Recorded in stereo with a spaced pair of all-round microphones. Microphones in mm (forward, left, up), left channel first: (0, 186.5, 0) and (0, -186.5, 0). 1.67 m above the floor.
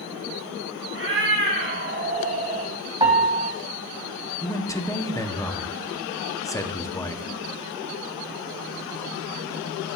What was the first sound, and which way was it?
A cat meowing, 35° right (ahead or behind).